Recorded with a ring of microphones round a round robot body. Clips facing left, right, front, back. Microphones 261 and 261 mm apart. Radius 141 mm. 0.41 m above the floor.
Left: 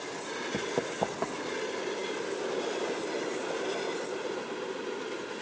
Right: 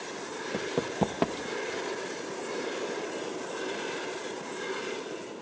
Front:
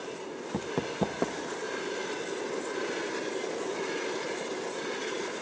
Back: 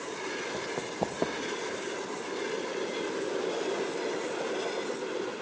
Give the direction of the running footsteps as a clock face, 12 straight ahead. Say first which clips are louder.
Right 2 dB, front 5 dB; 12 o'clock.